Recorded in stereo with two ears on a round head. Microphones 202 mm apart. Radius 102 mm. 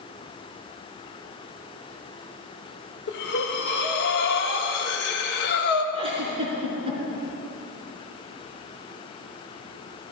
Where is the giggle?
25° right (ahead or behind), 3.5 m.